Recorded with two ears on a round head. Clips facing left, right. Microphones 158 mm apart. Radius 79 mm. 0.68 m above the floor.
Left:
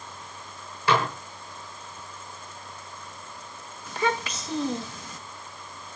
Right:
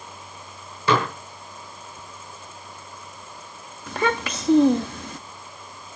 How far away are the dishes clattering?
About 9 m.